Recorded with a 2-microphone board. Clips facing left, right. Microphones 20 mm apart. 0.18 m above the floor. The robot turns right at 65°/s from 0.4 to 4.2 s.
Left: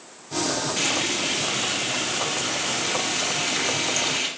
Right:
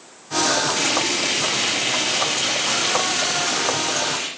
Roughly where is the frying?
Behind.